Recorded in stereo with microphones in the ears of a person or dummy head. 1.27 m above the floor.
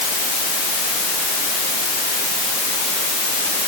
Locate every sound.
Only background noise.